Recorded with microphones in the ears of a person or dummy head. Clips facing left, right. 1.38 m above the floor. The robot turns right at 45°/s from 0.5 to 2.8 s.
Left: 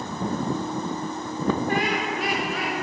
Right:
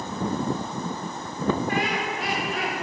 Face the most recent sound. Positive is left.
turn(degrees=95)